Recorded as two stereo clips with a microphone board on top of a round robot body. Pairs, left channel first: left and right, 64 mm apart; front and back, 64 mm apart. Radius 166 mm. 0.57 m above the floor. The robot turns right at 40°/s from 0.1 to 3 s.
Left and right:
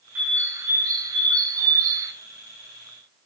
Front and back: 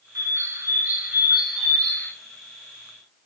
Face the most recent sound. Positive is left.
turn(degrees=-35)